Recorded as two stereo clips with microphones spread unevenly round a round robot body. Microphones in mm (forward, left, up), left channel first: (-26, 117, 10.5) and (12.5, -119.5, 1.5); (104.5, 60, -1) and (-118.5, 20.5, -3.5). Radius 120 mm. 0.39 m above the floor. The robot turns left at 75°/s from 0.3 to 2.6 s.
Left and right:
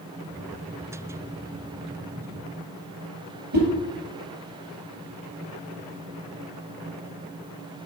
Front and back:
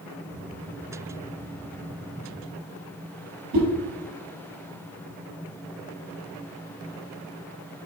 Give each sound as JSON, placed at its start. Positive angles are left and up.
{"t": 3.5, "sound": "a whoosh", "azimuth_deg": -130, "distance_m": 3.0}